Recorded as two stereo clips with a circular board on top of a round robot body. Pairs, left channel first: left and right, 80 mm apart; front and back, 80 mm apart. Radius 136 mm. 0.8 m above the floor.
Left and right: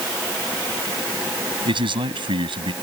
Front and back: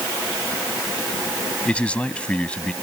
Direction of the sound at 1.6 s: 75° right.